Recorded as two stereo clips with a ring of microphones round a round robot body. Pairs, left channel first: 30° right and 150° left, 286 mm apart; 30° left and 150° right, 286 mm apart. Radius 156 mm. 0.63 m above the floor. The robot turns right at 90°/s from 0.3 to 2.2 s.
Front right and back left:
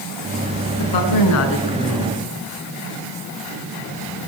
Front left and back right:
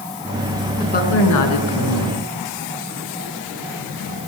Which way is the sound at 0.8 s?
45° right.